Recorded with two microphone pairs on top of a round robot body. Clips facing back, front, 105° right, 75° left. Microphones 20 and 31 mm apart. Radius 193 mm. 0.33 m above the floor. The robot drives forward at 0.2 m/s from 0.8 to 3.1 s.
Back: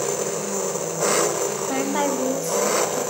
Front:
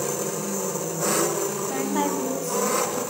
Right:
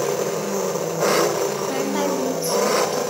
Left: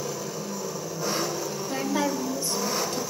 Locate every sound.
0.0 s an engine running: 120° right, 1.5 m; by 3.1 s 135° right, 1.8 m
1.7 s a woman speaking: straight behind, 3 m